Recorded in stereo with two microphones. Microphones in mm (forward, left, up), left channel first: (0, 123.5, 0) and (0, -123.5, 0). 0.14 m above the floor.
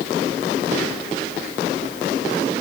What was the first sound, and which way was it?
Only background noise.